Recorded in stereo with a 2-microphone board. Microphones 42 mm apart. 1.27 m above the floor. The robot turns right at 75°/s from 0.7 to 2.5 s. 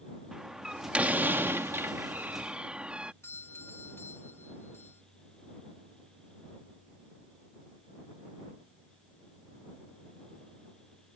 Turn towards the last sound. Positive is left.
turn(degrees=75)  # may be behind; listen again after turning